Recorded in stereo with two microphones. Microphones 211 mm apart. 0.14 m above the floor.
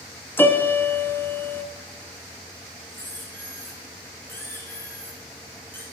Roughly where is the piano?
Centre.